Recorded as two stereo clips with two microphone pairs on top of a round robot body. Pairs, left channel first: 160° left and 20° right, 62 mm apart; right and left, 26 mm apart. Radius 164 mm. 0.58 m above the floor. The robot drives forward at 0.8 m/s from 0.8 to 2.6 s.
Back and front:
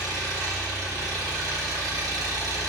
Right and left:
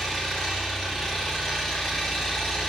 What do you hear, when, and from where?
0.0 s an engine running: 20° right, 3 m; by 2.7 s 30° right, 1.9 m